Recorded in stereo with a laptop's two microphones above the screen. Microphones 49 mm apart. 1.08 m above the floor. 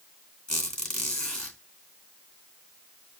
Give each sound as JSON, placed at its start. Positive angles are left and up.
{"t": 0.5, "sound": "a squeak", "side_deg": 20, "distance_m": 3.0}